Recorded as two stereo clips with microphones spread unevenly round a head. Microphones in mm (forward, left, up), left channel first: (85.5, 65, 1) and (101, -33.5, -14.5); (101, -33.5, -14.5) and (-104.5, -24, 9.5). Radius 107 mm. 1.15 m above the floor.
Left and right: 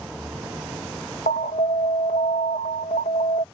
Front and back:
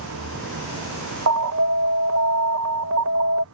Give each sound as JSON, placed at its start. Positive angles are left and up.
{"t": 0.0, "sound": "a vehicle", "azimuth_deg": -165}
{"t": 1.3, "sound": "an alarm", "azimuth_deg": 145}